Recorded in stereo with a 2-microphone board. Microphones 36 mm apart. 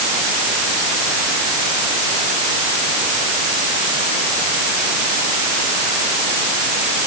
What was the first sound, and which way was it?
Only background noise.